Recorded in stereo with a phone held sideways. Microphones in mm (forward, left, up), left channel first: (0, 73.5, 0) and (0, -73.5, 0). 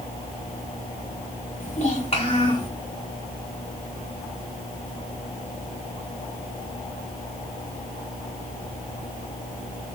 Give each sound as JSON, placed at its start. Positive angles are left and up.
{"t": 1.6, "sound": "a child speaking", "side_deg": 60, "distance_m": 3.0}